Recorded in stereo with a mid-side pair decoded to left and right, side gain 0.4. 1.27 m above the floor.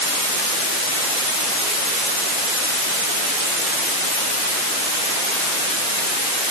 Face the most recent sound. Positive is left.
No sound to turn to.